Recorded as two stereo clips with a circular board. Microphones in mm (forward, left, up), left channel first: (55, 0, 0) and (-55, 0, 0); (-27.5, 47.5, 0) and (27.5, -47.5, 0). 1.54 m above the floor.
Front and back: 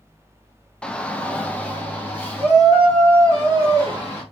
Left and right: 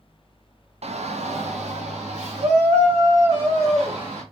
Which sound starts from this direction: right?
A shout, at 0.8 s.